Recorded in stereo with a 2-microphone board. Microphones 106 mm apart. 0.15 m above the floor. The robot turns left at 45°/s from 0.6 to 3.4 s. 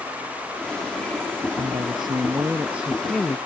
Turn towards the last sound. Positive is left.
turn(degrees=165)